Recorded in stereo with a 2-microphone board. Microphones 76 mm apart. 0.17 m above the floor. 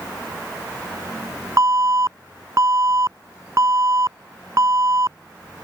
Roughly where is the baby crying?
No baby crying in this recording.